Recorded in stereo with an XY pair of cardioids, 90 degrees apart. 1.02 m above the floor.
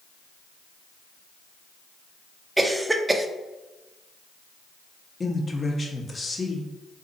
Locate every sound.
2.6 s a cough: 20° right, 0.5 m
5.2 s a man speaking: 35° left, 0.8 m